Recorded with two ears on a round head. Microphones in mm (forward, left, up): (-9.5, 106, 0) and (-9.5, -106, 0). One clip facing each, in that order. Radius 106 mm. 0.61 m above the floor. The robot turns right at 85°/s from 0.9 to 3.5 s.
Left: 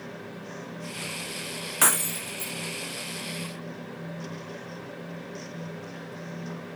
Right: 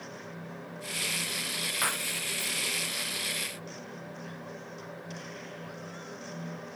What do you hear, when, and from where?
1.8 s breaking glass: 110° left; by 2.5 s 175° left